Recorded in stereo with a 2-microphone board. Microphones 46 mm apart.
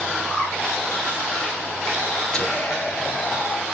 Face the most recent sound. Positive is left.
turn(degrees=20)  # may be behind; listen again after turning